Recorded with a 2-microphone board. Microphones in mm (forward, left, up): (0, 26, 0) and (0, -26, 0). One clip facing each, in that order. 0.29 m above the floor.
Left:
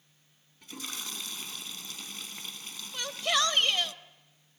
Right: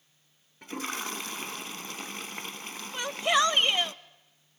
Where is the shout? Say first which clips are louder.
Right 4 dB; 20° right (ahead or behind), 0.9 m.